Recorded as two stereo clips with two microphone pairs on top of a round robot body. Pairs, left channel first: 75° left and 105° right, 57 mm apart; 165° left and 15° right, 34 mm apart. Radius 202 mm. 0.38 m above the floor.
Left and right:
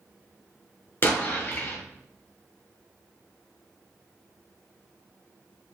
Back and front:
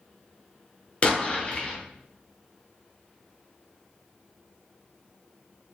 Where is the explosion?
120° left, 1.4 m.